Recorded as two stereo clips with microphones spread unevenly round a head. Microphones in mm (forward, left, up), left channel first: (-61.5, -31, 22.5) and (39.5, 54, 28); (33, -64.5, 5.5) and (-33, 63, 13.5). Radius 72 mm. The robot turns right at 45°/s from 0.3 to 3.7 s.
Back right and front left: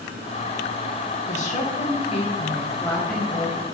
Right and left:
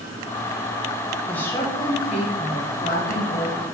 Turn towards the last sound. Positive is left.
turn(degrees=-35)